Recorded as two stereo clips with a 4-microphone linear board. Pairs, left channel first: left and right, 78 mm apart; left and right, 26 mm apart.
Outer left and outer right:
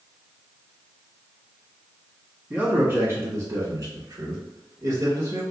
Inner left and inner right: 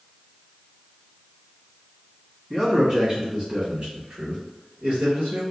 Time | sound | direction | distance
2.5 | a man speaking | 20° right (ahead or behind) | 1.6 m